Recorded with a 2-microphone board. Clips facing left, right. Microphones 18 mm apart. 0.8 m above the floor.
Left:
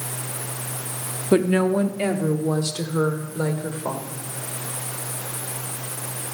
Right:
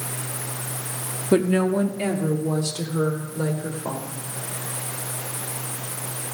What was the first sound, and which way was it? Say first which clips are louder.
A woman speaking: left 1 dB; 15° left (ahead or behind).